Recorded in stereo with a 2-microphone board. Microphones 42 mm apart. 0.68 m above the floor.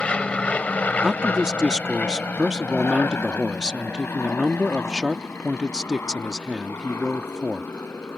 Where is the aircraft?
25° left (ahead or behind); by 8.2 s 80° left.